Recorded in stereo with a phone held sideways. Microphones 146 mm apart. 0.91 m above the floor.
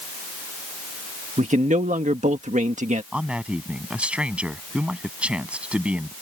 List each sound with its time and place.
1.4 s a man speaking: 55° right (ahead or behind)
3.1 s a man speaking: 10° right (ahead or behind)